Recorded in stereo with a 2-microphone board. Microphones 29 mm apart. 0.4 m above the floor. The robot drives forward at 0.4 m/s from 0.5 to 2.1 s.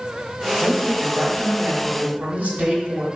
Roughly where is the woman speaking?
Right.